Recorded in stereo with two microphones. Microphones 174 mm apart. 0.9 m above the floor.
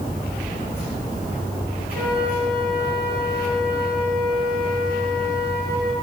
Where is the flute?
70° right (ahead or behind), 3.5 m.